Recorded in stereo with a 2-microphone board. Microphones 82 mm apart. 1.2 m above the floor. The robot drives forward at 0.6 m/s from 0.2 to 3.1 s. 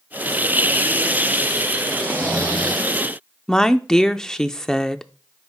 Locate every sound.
2.0 s snoring: 20° left (ahead or behind), 4 m
3.5 s a woman speaking: 5° left (ahead or behind), 0.5 m